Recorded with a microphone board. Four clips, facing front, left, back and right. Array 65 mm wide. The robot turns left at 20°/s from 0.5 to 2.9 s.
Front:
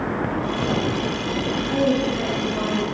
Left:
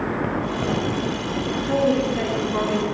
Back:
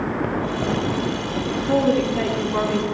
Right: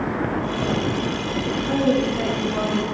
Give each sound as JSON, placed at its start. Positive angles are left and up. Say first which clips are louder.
{"t": 1.7, "sound": "a woman speaking", "louder": "even, back 3 dB", "azimuth_deg": 170, "distance_m": 6.0}